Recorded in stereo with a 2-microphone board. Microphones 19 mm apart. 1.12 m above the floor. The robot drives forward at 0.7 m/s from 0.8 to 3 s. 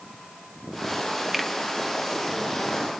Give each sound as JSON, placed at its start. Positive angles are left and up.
{"t": 1.3, "sound": "a finger snap", "side_deg": 0, "distance_m": 1.3}